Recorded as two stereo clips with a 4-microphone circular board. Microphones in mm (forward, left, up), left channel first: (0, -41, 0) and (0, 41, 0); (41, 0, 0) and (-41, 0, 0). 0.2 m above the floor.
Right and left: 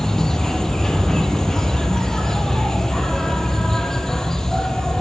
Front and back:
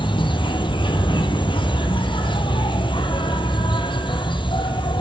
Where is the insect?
5° right, 1.0 m.